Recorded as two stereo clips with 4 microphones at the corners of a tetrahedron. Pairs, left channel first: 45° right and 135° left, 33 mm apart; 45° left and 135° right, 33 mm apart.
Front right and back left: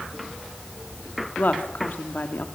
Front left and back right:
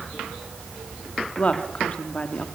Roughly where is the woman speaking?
Ahead.